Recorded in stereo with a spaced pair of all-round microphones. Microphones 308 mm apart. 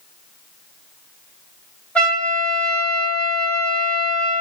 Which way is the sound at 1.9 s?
5° left (ahead or behind).